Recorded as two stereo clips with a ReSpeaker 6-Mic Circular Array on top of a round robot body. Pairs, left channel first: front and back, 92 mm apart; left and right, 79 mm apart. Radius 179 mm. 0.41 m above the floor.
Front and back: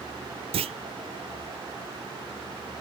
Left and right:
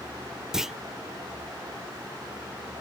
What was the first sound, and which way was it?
A clunk, 175° right.